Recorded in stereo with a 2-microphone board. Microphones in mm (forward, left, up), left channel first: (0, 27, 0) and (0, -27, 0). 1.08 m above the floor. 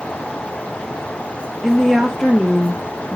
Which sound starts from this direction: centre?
A woman speaking, at 1.6 s.